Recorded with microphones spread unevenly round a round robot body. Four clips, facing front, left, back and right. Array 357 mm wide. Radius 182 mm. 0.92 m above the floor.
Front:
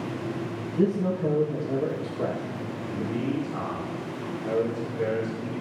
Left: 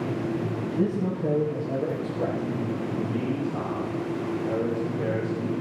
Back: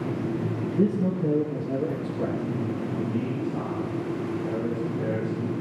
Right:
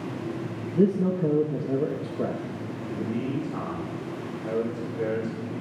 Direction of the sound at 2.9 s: 65° right.